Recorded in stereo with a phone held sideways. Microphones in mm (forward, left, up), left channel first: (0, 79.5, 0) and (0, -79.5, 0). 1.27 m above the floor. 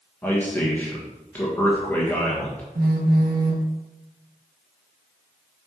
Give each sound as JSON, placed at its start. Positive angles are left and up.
{"t": 0.2, "sound": "a man speaking", "side_deg": 10, "distance_m": 1.4}
{"t": 2.8, "sound": "a phone buzzing", "side_deg": -85, "distance_m": 1.1}